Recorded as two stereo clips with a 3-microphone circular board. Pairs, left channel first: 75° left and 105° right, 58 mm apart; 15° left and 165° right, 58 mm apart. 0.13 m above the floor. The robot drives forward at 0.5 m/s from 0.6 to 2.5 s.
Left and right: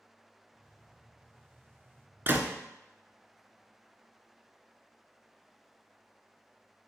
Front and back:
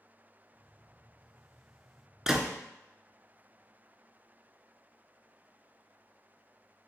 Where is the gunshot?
90° right, 0.5 m; by 2.5 s 110° right, 0.6 m.